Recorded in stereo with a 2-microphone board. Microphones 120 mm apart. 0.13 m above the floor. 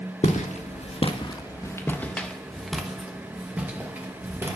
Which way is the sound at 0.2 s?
80° left.